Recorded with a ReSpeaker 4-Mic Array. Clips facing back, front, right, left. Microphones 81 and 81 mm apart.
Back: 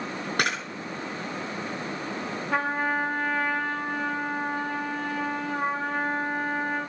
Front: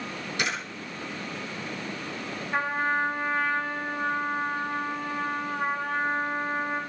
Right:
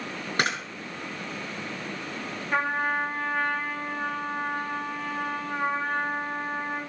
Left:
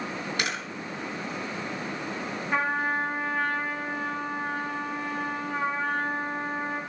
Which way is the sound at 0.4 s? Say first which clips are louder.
Back 3 dB, right 6 dB; 140° right.